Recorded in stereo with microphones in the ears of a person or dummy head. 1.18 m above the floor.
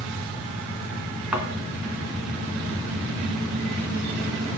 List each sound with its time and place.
1.3 s a thud: 10° right (ahead or behind), 3 m